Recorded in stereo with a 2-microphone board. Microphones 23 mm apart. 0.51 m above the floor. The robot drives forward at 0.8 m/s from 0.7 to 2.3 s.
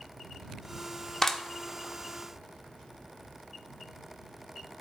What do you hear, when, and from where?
1.2 s a clap: 25° left (ahead or behind), 0.8 m; by 1.4 s 20° left (ahead or behind), 0.9 m